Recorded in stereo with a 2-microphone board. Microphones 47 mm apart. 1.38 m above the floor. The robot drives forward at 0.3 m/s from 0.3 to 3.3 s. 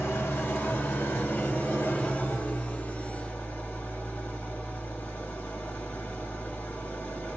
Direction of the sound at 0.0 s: 60° left (ahead or behind).